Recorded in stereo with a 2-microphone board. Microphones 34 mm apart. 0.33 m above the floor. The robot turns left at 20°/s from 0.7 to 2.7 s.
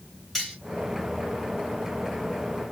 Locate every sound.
0.3 s cutlery clinking: 10° left (ahead or behind), 1.3 m